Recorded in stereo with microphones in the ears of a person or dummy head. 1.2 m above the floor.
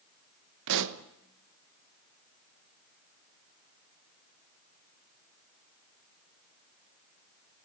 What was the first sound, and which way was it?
A pop, 70° right (ahead or behind).